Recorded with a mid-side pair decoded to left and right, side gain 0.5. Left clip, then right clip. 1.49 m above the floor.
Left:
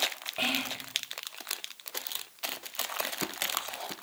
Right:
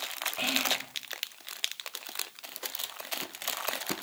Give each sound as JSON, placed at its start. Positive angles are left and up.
{"t": 0.4, "sound": "whispering", "azimuth_deg": 15, "distance_m": 1.4}